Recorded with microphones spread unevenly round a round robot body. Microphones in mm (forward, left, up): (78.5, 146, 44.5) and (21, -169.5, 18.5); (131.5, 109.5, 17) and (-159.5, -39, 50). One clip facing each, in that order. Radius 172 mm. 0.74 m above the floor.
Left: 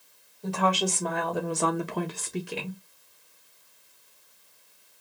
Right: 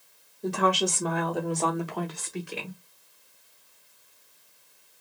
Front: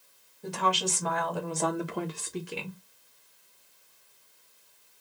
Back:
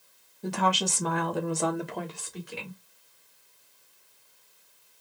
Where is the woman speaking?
160° right, 1.4 m; by 2.8 s 40° left, 1.3 m.